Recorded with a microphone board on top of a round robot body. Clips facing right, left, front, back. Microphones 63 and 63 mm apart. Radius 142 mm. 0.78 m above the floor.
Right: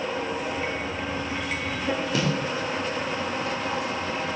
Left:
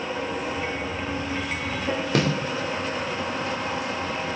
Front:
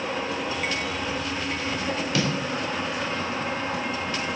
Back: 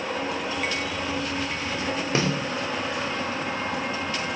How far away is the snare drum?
About 3 m.